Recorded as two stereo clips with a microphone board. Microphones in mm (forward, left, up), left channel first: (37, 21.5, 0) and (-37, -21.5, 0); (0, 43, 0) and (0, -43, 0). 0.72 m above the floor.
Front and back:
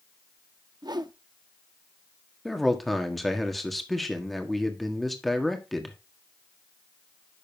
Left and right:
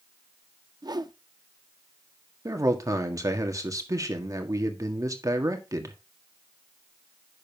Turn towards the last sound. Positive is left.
turn(degrees=-60)